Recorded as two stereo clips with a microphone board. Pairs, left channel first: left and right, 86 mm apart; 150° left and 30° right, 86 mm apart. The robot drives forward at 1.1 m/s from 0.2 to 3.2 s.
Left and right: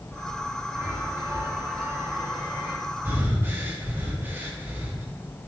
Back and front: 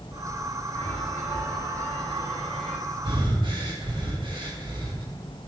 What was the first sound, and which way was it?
A chime, 150° right.